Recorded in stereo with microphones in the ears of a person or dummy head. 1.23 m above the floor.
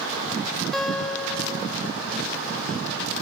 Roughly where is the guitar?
Centre.